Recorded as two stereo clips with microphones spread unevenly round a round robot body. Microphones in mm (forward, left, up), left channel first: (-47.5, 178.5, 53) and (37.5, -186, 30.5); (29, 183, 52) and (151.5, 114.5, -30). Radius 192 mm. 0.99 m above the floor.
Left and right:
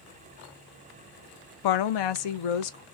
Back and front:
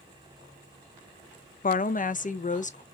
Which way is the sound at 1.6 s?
95° left.